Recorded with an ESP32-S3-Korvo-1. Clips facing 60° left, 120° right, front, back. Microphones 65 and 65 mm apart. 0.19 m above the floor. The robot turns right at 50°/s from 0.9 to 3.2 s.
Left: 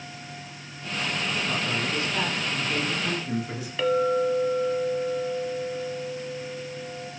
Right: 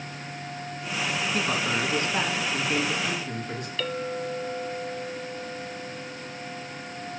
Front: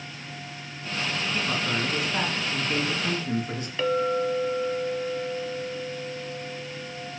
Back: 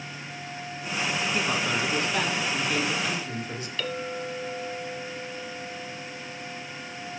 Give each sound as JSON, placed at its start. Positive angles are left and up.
{"t": 1.3, "sound": "a man speaking", "azimuth_deg": -115, "distance_m": 2.0}
{"t": 3.8, "sound": "a clink", "azimuth_deg": 25, "distance_m": 0.8}